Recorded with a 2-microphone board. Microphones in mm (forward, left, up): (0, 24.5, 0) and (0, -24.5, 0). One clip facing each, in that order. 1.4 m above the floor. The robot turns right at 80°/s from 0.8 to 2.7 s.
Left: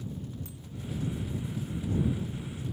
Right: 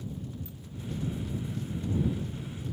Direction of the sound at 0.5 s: 80° left.